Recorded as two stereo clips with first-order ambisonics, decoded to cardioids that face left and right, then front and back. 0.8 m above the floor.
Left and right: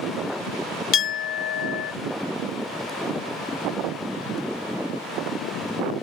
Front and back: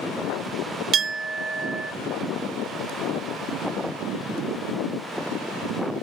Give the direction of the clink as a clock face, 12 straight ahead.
8 o'clock.